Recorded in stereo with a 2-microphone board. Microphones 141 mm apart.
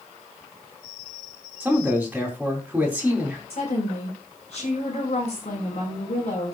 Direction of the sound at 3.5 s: 50° left (ahead or behind).